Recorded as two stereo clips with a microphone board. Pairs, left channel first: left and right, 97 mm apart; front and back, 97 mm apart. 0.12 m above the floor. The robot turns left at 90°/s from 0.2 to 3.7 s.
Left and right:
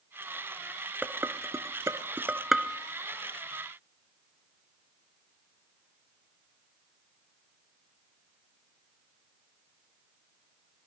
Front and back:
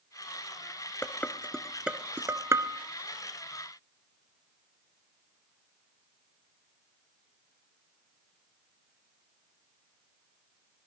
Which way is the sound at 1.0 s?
35° right.